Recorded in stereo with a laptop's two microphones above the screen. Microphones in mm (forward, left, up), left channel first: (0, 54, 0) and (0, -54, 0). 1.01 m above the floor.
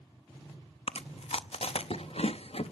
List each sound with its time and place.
0.9 s chewing: 65° left (ahead or behind), 0.6 m